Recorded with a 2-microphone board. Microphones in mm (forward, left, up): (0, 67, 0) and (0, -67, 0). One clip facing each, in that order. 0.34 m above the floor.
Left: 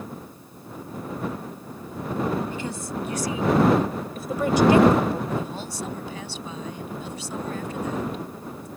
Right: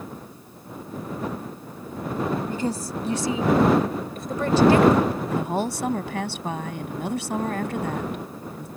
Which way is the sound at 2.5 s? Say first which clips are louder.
Right 4 dB; 40° right (ahead or behind).